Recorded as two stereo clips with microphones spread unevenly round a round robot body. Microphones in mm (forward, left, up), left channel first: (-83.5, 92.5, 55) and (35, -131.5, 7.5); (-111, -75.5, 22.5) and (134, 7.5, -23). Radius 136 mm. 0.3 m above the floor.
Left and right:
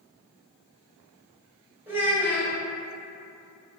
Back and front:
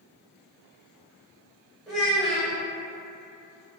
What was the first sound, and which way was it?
A child speaking, 40° right.